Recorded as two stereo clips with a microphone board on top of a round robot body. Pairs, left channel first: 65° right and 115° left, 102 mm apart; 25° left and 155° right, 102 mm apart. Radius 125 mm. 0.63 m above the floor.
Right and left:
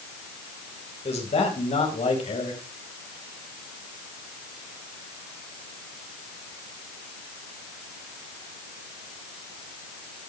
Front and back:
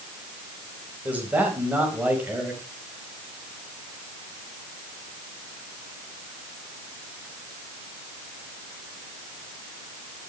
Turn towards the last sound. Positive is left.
turn(degrees=-85)